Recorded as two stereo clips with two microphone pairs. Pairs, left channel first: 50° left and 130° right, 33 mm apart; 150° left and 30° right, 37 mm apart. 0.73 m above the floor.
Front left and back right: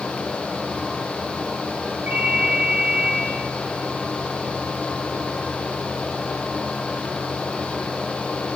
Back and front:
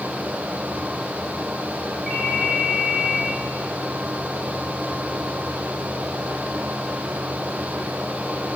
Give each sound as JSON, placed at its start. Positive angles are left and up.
{"t": 2.1, "sound": "a ringtone", "azimuth_deg": -115, "distance_m": 3.0}